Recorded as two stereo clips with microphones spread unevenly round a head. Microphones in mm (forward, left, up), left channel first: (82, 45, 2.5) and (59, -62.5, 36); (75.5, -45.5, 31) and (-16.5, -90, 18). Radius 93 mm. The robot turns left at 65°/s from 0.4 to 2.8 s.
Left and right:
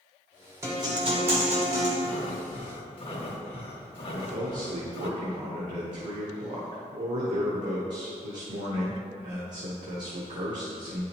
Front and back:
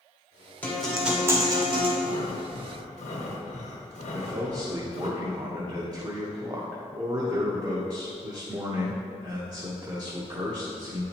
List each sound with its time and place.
0.6 s a guitar: 45° right, 1.5 m; by 1.9 s 125° right, 1.5 m
2.0 s breathing: 100° left, 1.1 m; by 5.1 s 50° left, 1.1 m
4.1 s a man speaking: 100° right, 1.1 m